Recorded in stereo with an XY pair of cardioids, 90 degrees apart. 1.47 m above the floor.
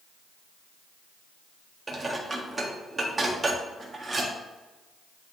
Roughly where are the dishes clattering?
Ahead right.